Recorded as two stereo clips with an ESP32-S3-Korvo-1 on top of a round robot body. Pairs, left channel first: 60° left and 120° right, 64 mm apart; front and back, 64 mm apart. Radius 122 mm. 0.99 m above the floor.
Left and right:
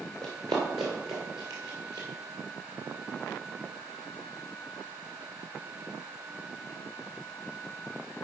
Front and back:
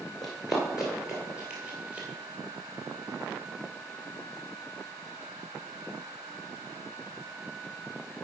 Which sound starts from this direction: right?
Running footsteps, at 0.2 s.